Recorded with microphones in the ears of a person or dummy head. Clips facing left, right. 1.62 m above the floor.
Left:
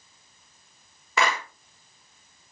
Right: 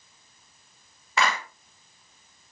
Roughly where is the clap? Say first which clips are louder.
Left 1 dB; left.